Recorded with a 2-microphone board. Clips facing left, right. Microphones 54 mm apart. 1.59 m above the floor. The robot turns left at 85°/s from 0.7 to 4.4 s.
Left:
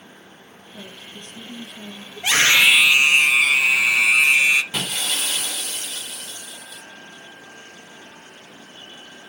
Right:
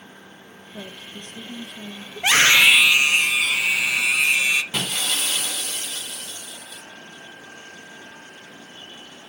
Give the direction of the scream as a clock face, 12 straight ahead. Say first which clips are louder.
Right 1 dB; 4 o'clock.